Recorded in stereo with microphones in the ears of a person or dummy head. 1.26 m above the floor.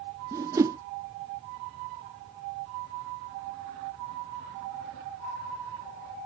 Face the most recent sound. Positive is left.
turn(degrees=-15)  # may be behind; listen again after turning